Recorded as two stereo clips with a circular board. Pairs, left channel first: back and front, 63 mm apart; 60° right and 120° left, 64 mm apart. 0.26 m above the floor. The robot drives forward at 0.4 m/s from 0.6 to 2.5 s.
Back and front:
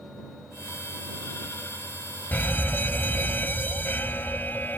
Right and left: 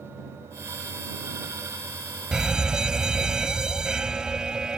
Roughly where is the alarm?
Behind.